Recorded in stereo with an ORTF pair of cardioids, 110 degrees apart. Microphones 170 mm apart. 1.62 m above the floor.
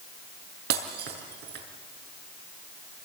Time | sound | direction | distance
0.7 | breaking glass | 70° right | 6 m